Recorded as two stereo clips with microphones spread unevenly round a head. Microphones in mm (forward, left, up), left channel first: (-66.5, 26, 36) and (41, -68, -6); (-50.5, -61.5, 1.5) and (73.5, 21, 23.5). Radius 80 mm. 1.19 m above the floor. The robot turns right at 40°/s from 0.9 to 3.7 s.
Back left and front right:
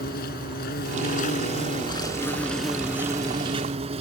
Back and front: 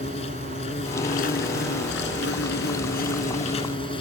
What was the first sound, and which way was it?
An insect, 160° left.